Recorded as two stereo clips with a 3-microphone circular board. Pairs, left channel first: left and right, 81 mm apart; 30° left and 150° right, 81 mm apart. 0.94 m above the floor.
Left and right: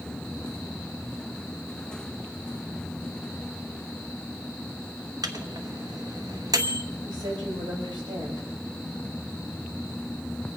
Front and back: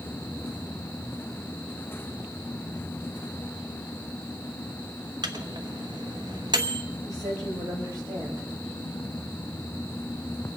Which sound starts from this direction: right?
A woman speaking, at 7.0 s.